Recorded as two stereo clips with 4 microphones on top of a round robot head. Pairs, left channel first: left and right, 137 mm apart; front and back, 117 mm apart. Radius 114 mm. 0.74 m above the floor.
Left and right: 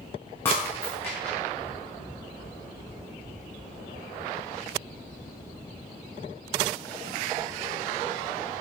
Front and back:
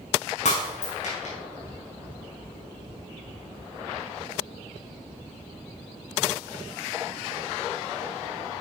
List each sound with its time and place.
0.5 s breaking glass: 10° left, 3.5 m